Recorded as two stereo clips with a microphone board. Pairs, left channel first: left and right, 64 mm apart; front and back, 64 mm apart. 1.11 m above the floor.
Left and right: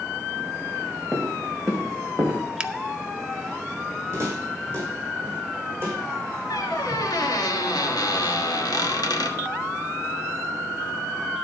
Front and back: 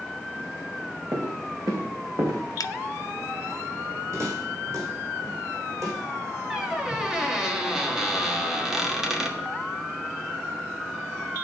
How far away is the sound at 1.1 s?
About 3 m.